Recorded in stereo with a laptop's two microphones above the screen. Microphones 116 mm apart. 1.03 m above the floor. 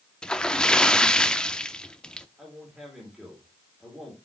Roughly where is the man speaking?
Centre.